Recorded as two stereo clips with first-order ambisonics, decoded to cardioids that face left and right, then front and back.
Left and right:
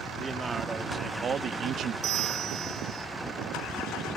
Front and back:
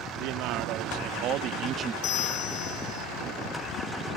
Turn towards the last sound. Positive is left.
turn(degrees=-45)